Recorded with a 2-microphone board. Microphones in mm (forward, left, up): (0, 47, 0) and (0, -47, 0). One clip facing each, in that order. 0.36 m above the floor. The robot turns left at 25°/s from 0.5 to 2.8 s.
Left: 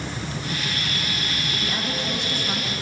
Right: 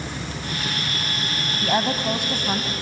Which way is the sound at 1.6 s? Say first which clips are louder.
Right 9 dB; 60° right (ahead or behind).